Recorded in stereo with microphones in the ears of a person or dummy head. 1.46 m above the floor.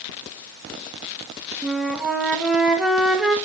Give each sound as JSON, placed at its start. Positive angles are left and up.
{"t": 1.6, "sound": "a flute", "side_deg": -5, "distance_m": 1.6}